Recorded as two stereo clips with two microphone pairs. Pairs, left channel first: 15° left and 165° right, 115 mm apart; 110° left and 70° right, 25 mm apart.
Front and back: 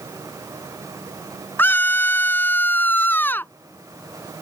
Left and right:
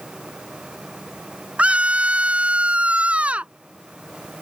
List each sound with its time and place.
1.6 s a scream: 55° right